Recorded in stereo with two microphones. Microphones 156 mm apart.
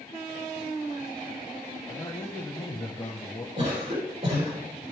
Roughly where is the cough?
Right.